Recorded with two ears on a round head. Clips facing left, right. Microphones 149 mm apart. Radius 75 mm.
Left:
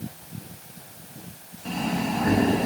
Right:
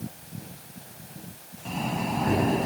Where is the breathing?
5° left (ahead or behind), 1.9 m.